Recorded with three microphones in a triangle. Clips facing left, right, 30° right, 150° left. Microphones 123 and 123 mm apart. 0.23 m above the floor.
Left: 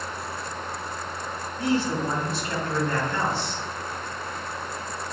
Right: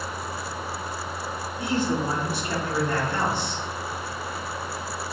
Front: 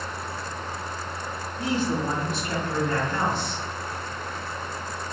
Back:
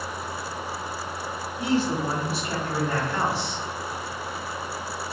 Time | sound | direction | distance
1.6 | a man speaking | 145° right | 1.2 m